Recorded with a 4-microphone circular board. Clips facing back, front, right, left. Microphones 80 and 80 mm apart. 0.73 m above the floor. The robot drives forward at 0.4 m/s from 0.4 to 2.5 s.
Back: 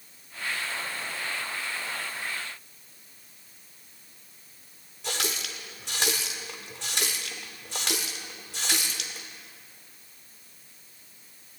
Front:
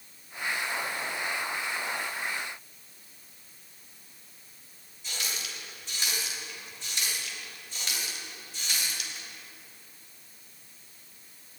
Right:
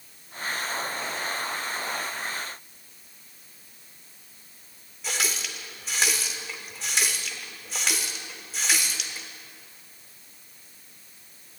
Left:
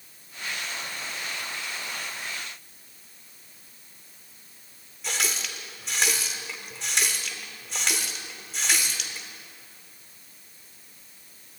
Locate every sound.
5.0 s a running tap: straight behind, 1.2 m